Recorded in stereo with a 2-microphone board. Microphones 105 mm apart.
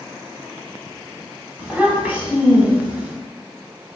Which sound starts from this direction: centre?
A child speaking, at 1.6 s.